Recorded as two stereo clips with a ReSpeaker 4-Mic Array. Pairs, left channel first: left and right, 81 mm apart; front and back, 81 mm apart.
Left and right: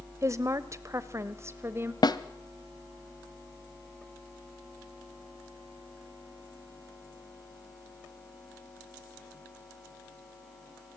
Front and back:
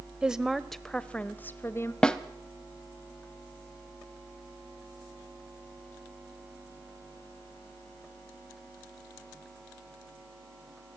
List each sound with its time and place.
0.2 s a woman speaking: 105° right, 1.2 m; by 1.9 s 40° right, 1.3 m
2.0 s a snare drum: 80° left, 1.1 m